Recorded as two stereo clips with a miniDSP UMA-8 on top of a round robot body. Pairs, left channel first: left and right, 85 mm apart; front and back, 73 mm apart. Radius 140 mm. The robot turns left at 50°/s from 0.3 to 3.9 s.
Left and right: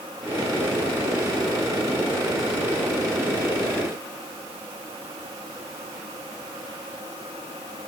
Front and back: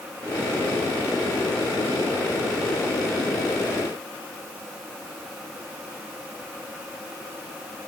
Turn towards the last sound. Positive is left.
No sound to turn to.